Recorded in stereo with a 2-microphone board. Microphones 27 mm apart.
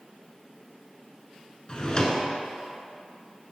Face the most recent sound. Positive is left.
turn(degrees=30)  # may be behind; listen again after turning